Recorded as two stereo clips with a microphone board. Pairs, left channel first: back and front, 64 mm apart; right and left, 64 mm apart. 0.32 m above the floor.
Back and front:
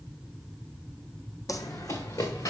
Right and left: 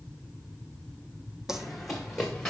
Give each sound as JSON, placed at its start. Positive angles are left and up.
{"t": 1.5, "sound": "running footsteps", "azimuth_deg": 170, "distance_m": 1.0}